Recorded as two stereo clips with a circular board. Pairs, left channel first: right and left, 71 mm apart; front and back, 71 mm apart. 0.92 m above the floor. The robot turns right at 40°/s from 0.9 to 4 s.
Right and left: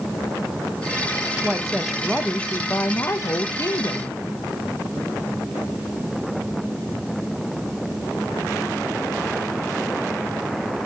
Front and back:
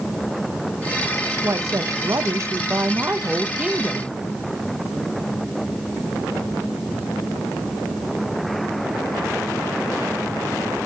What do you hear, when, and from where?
1.4 s a woman speaking: 160° left, 0.9 m; by 4.2 s 95° right, 0.9 m